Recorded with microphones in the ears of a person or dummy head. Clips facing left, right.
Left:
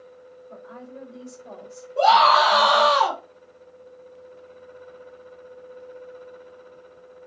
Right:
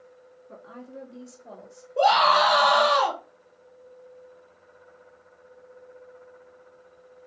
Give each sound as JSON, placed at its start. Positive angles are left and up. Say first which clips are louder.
{"t": 0.5, "sound": "a woman speaking", "louder": "left 1 dB", "side_deg": -55, "distance_m": 1.0}
{"t": 2.0, "sound": "a scream", "louder": "left 3 dB", "side_deg": -5, "distance_m": 0.7}